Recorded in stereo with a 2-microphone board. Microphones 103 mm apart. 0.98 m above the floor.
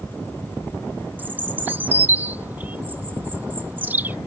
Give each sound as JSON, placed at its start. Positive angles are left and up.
{"t": 1.2, "sound": "a bird", "side_deg": -20}